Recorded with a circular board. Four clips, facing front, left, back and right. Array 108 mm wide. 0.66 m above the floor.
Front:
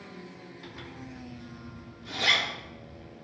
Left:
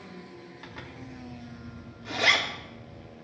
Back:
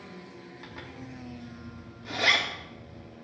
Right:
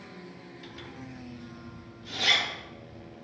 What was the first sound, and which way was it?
A zipper, 120° left.